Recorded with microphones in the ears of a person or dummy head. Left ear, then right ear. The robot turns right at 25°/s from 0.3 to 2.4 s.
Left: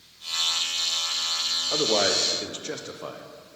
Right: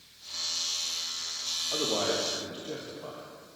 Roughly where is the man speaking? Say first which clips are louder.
Left 6 dB; left.